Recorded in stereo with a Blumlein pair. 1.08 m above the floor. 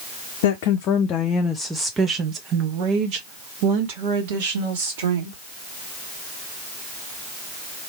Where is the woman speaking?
50° left, 0.7 m; by 5.4 s 60° right, 2 m.